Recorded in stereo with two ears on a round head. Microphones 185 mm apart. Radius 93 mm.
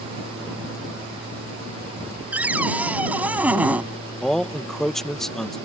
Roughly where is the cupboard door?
Centre.